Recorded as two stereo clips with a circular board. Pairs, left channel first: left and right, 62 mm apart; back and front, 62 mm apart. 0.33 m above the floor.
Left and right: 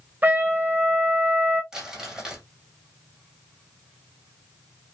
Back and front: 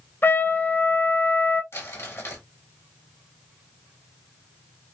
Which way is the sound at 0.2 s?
135° right.